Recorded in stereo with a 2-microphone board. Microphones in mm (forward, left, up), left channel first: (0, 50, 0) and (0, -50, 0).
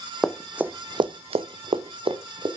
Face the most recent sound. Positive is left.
turn(degrees=-60)  # may be behind; listen again after turning